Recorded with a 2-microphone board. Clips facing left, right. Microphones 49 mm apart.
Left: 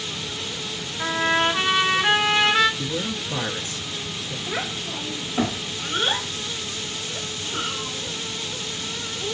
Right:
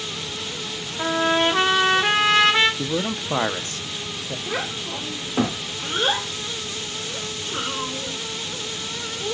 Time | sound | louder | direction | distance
1.0 | a trumpet | right 1 dB | 65° right (ahead or behind) | 1.4 m
2.8 | a man speaking | right 3 dB | 45° right (ahead or behind) | 0.7 m
4.5 | a child speaking | right 1 dB | 70° right (ahead or behind) | 2.5 m